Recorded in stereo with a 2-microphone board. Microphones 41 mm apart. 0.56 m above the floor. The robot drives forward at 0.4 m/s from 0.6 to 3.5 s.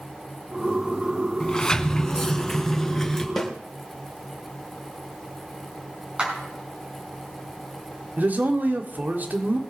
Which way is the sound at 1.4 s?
20° left (ahead or behind).